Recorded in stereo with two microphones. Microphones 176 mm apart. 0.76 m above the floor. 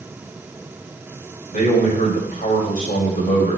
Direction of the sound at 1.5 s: 50° left (ahead or behind).